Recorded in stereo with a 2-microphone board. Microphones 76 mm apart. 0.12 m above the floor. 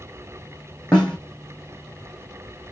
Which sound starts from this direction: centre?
A snare drum, at 0.9 s.